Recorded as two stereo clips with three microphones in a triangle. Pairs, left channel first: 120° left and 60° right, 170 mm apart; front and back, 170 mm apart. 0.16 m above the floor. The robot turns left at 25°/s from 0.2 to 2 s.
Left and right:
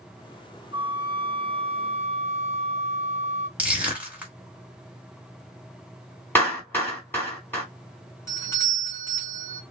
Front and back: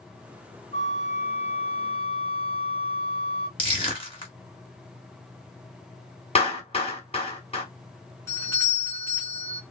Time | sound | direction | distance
0.7 | a flute | 10° right | 0.5 m
3.6 | crushing | 15° left | 1.6 m
6.3 | a clap | 45° left | 2 m
8.3 | a doorbell | 60° left | 2.5 m